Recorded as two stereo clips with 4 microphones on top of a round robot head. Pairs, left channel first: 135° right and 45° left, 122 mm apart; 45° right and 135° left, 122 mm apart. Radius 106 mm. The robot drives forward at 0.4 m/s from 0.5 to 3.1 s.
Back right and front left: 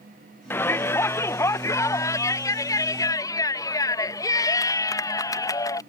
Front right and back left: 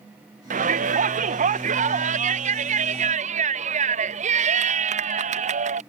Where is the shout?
150° left; by 5.8 s 160° left.